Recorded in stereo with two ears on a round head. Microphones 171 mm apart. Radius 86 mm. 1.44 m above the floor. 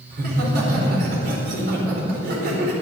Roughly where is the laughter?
Right.